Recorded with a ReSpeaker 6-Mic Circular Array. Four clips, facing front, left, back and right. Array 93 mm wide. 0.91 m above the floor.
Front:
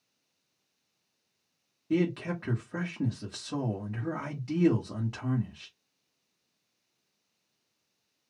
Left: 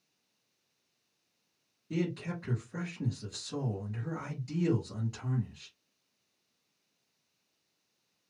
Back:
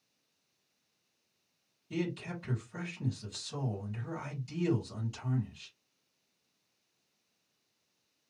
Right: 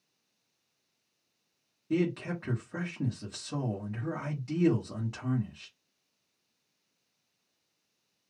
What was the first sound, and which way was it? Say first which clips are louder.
A man speaking: right 5 dB, front 8 dB; 25° right.